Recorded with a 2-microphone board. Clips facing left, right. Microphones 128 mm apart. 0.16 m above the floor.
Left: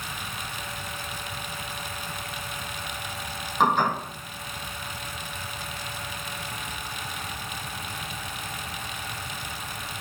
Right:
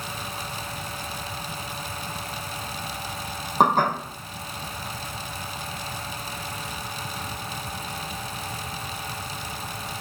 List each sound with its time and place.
3.6 s dishes clattering: 45° right (ahead or behind), 5 m